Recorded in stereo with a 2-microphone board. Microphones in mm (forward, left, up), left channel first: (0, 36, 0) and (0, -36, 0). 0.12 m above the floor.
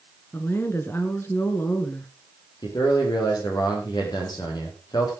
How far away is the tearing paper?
I don't hear tearing paper.